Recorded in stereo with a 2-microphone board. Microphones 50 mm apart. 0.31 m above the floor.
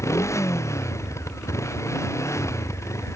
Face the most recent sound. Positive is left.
turn(degrees=80)